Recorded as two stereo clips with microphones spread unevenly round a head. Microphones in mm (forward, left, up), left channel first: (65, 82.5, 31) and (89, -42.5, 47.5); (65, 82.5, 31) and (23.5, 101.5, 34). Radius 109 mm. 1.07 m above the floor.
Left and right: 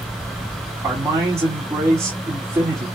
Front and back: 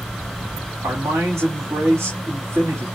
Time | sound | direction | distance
0.8 | a man speaking | 155° right | 2.0 m